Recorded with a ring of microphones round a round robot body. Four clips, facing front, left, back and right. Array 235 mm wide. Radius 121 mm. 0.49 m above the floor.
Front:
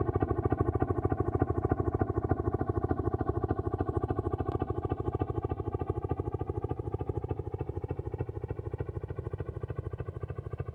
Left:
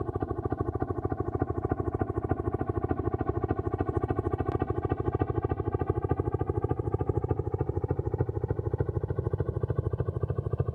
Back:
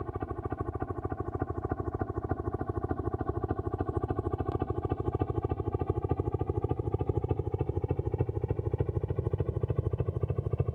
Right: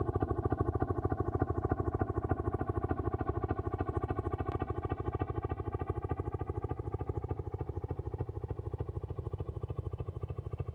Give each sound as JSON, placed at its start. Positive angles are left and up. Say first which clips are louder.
{"t": 0.0, "sound": "a helicopter", "louder": "left 2 dB, front 6 dB", "azimuth_deg": 15}